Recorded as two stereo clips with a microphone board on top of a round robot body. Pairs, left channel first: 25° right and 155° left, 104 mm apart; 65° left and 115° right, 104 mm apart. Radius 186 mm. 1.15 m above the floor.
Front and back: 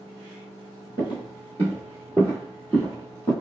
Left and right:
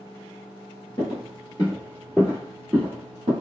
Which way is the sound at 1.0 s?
120° left.